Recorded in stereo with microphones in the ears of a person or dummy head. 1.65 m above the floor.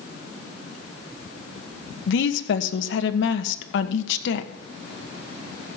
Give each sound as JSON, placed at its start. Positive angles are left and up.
{"t": 2.1, "sound": "a woman speaking", "side_deg": 70, "distance_m": 1.4}